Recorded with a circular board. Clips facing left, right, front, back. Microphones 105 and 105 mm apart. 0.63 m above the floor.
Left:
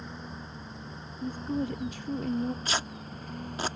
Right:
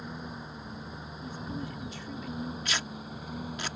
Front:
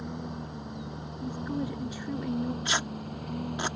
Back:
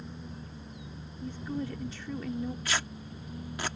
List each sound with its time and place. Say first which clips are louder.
0.0 s a lawn mower: right 1 dB, front 7 dB; 10° right
1.2 s a woman speaking: left 8 dB, front 3 dB; 70° left
2.6 s tearing paper: left 2 dB, front 3 dB; 55° left